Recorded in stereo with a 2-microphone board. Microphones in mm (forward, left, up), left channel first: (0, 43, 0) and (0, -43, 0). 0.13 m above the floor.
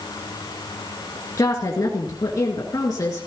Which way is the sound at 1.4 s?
45° left (ahead or behind).